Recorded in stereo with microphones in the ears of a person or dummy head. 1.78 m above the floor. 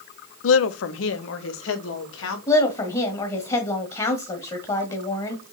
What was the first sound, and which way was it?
A woman speaking, 75° left (ahead or behind).